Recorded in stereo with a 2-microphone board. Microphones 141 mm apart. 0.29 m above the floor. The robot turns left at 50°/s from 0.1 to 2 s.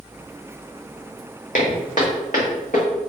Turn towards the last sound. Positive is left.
turn(degrees=70)  # may be behind; listen again after turning